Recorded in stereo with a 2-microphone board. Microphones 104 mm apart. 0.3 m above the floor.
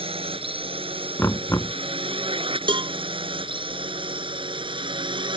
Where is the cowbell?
50° right (ahead or behind).